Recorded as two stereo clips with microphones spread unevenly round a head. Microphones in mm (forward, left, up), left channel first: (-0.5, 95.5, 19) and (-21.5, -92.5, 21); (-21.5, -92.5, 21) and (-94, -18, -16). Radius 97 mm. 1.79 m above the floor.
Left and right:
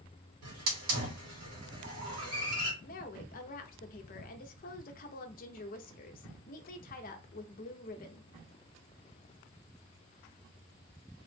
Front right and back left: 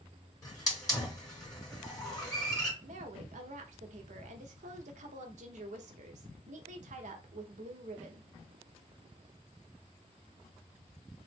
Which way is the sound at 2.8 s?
120° left.